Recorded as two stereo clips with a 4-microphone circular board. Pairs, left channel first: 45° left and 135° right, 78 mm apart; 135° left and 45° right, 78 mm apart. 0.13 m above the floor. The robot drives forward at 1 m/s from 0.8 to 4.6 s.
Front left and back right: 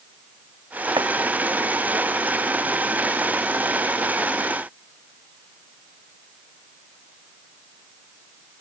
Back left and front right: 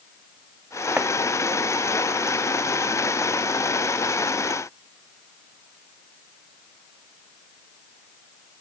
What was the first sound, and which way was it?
Chopping, 120° right.